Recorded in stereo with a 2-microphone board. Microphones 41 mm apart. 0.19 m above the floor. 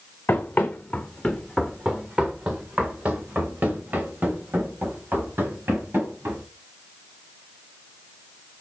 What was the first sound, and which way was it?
Running footsteps, 50° left (ahead or behind).